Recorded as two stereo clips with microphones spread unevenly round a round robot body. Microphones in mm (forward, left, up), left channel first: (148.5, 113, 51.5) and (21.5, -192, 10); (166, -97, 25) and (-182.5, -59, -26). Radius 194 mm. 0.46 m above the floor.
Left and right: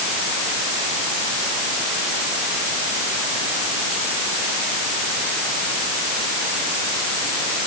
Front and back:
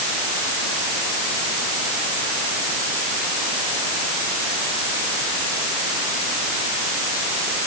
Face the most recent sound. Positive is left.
No sound to turn to.